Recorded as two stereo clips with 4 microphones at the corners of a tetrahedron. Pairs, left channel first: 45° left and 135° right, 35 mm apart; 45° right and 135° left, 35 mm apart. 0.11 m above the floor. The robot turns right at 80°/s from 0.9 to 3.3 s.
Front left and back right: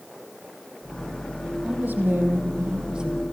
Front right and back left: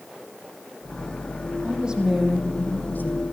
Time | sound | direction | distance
1.6 | a woman speaking | straight behind | 5.5 m